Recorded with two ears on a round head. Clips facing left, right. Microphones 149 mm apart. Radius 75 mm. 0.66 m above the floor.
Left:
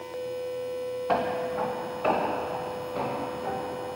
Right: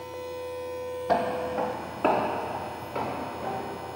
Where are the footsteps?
25° right (ahead or behind), 1.1 m; by 3.9 s 75° right (ahead or behind), 4.5 m.